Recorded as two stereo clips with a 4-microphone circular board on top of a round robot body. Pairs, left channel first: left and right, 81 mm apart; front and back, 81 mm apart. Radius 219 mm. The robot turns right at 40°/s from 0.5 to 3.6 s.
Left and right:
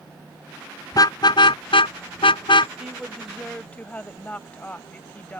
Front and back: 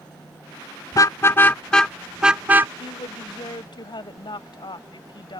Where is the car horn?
45° left; by 2.7 s 115° left.